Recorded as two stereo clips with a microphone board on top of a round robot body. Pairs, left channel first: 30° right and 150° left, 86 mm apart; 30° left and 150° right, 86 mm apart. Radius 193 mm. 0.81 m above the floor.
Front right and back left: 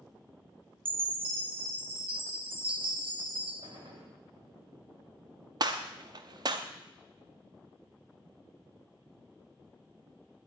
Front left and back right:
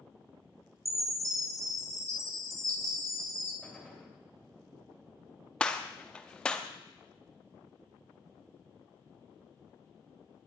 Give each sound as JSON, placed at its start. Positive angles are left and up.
{"t": 0.8, "sound": "a chime", "azimuth_deg": 155, "distance_m": 2.5}
{"t": 3.6, "sound": "a gunshot", "azimuth_deg": 120, "distance_m": 4.0}
{"t": 5.6, "sound": "a gunshot", "azimuth_deg": 110, "distance_m": 0.6}